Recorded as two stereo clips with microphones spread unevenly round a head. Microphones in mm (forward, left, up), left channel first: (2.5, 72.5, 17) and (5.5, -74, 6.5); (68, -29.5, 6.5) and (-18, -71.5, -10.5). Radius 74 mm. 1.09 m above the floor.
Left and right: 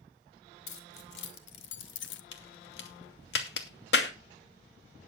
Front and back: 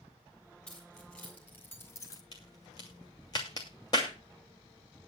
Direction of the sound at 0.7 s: 110° left.